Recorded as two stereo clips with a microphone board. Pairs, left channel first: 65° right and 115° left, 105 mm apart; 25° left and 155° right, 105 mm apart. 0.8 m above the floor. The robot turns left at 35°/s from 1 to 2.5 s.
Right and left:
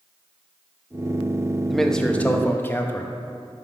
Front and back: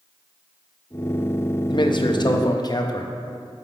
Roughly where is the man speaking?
Ahead left.